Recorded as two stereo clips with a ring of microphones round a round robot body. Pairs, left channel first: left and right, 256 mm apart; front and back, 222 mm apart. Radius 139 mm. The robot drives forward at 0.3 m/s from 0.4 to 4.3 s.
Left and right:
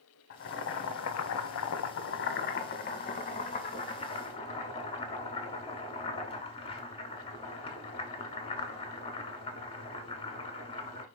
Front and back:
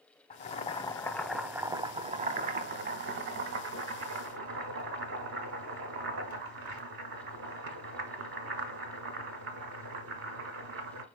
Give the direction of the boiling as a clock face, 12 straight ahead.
10 o'clock.